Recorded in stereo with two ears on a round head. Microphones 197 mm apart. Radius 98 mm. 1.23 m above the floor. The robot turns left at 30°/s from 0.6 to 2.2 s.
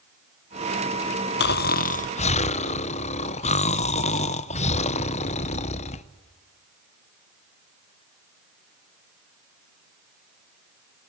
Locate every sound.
1.4 s snoring: 50° left (ahead or behind), 0.6 m; by 6.0 s 30° left (ahead or behind), 0.6 m